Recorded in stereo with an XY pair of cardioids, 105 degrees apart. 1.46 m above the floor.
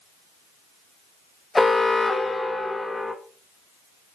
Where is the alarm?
15° left, 1.6 m.